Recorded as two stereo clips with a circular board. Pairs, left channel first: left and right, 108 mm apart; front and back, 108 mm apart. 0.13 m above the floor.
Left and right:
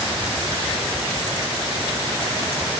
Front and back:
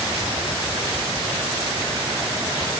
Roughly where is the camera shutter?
No camera shutter in this recording.